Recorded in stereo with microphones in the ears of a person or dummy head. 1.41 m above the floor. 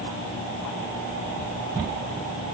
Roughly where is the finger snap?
No finger snap in this recording.